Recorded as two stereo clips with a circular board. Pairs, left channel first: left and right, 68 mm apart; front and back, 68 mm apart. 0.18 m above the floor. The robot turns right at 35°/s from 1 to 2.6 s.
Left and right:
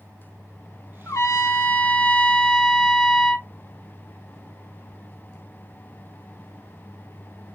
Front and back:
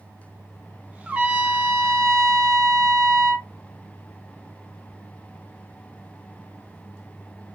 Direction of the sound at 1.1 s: 110° left.